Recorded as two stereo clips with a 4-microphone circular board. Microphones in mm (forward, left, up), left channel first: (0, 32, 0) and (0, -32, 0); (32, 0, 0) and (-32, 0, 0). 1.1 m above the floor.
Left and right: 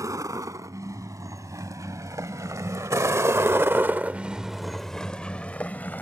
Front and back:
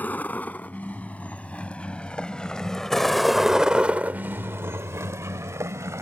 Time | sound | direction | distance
0.0 | a vehicle | 65° right | ?